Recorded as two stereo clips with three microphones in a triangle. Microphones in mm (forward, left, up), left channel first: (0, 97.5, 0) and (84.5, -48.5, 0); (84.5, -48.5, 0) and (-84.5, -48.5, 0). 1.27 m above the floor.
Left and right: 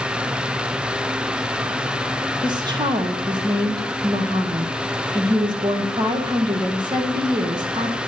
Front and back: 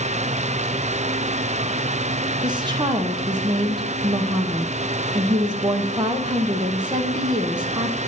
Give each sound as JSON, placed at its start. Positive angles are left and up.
{"t": 2.4, "sound": "a woman speaking", "azimuth_deg": -120, "distance_m": 0.9}